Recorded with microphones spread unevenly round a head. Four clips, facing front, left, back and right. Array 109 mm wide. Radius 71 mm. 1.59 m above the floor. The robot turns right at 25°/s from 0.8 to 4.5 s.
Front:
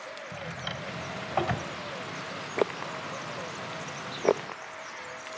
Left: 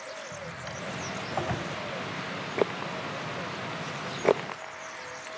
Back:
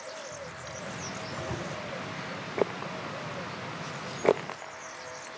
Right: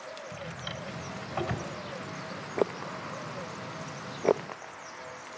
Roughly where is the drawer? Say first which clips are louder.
Left 1 dB, front 3 dB; ahead right.